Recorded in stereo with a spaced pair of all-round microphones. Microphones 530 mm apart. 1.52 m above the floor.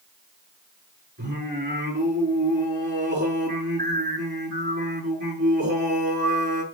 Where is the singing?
20° right (ahead or behind), 4.5 m.